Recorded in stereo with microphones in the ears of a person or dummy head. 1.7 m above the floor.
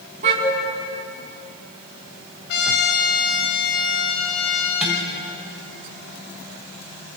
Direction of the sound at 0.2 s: 45° right (ahead or behind).